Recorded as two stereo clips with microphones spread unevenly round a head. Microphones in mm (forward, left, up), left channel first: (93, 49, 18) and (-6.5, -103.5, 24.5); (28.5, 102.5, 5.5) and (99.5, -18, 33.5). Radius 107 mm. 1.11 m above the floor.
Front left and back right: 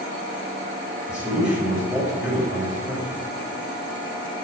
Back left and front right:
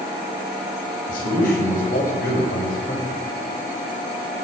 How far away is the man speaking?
About 6 m.